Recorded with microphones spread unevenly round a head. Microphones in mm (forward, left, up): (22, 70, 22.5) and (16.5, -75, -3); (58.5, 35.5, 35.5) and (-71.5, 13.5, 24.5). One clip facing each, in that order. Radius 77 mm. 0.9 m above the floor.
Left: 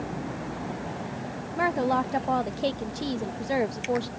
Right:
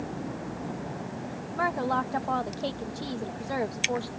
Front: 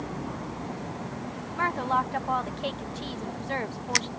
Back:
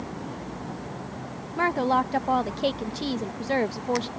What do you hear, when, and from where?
1.6 s a woman speaking: 160° left